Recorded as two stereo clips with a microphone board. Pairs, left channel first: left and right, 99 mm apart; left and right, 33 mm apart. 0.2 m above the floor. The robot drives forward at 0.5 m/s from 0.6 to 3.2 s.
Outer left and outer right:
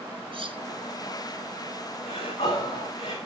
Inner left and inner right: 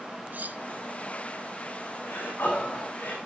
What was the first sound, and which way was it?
Cutlery clinking, 65° right (ahead or behind).